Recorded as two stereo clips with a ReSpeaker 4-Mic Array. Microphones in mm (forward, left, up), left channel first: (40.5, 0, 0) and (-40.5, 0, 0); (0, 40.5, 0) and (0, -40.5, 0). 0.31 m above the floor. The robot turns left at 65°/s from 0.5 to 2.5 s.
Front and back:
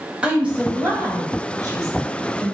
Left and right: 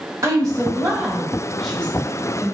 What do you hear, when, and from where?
0.2 s a woman speaking: 110° right, 1.4 m; by 2.5 s 120° left, 1.4 m